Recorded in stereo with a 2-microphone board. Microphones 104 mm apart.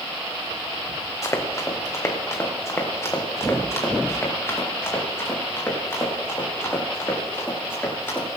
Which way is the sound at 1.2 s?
30° left (ahead or behind).